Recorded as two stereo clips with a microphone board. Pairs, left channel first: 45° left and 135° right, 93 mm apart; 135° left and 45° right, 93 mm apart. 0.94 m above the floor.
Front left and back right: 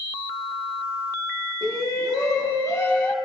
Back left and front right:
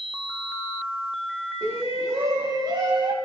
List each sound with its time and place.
1.6 s a shout: 5° left, 2.5 m; by 3.1 s 20° right, 1.7 m